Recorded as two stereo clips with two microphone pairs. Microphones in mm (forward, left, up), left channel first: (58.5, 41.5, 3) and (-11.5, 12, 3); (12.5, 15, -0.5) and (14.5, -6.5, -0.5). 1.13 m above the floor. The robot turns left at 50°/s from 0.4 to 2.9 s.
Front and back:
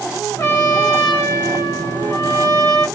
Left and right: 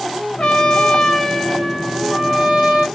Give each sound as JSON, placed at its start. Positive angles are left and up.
{"t": 0.4, "sound": "a trumpet", "azimuth_deg": 65, "distance_m": 1.3}